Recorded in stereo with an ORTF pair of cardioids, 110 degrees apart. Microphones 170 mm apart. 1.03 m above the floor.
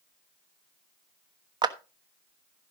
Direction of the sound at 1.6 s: 25° right.